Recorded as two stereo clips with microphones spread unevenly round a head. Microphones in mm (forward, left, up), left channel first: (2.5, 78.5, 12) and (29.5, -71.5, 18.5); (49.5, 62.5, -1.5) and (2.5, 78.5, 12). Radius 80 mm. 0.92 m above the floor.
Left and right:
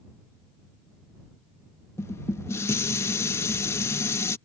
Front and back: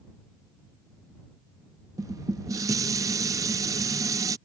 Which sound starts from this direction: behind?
Dishes clattering, at 2.0 s.